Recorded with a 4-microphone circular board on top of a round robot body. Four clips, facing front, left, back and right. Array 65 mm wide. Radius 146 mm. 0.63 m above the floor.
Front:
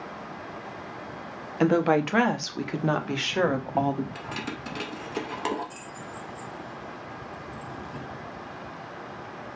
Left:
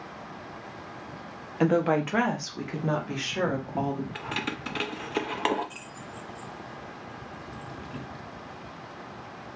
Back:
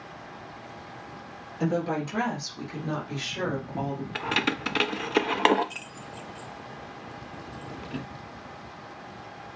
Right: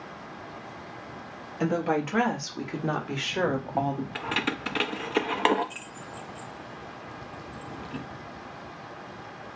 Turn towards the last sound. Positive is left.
turn(degrees=-160)